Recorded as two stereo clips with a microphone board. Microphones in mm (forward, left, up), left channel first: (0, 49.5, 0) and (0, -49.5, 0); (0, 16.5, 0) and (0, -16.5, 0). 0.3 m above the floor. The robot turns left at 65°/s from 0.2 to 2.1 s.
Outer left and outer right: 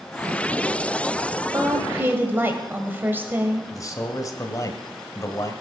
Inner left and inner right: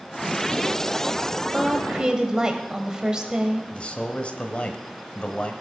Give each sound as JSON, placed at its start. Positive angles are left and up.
{"t": 1.5, "sound": "a woman speaking", "azimuth_deg": -100, "distance_m": 1.7}
{"t": 3.7, "sound": "a man speaking", "side_deg": 40, "distance_m": 1.4}